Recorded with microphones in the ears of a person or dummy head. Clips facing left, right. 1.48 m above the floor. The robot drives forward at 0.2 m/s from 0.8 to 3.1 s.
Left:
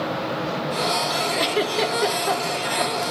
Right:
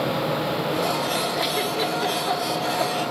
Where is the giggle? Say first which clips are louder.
Left 3 dB; 50° left (ahead or behind), 0.8 m; by 2.9 s 40° left (ahead or behind), 1.0 m.